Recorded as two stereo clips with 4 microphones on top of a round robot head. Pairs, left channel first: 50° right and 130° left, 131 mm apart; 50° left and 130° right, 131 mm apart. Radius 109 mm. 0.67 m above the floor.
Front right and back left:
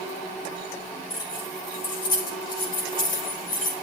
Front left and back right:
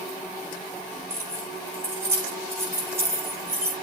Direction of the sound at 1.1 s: 60° right.